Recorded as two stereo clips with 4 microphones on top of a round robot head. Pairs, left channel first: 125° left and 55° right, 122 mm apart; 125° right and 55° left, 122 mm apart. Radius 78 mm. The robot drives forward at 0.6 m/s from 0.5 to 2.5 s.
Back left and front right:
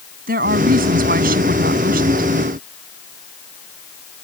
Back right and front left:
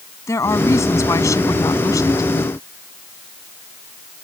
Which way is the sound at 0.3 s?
60° right.